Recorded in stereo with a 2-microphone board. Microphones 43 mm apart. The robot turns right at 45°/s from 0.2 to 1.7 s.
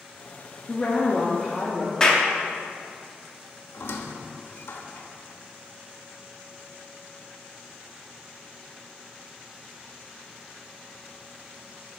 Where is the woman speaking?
150° left, 0.9 m; by 1.9 s 165° right, 0.9 m.